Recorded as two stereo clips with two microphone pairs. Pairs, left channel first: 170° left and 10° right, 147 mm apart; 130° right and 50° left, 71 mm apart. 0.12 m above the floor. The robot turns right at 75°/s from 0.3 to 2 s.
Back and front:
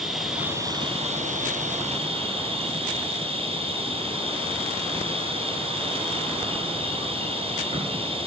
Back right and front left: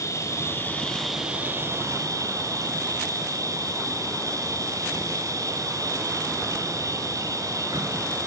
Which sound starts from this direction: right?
An insect, at 0.0 s.